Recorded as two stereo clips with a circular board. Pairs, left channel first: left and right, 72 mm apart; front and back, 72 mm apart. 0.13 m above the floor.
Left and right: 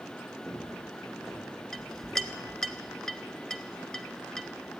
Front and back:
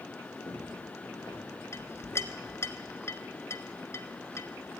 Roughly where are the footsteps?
Ahead.